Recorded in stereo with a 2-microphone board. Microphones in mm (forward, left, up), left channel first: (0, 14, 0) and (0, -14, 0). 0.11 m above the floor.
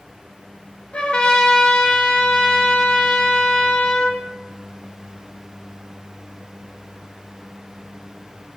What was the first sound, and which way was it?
A trumpet, 40° left (ahead or behind).